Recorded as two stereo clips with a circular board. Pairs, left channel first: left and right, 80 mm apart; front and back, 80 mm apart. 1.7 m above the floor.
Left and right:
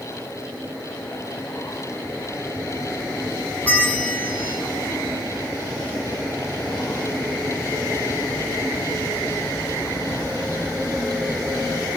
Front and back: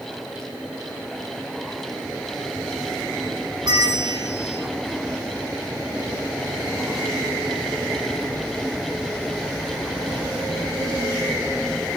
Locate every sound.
3.6 s a bell: 160° left, 2.0 m